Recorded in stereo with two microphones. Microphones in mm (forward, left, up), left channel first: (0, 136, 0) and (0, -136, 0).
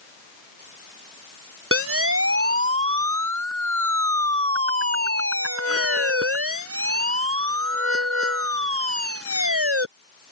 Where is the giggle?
No giggle in this recording.